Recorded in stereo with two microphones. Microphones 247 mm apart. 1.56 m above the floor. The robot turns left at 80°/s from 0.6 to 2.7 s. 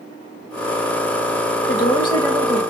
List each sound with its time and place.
1.7 s a woman speaking: 50° left, 0.9 m; by 2.6 s 25° right, 0.9 m